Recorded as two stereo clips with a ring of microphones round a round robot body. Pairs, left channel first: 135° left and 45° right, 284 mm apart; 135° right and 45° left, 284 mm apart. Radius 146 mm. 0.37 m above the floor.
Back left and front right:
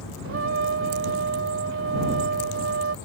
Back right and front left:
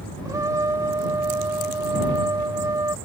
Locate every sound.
0.2 s a trumpet: 30° right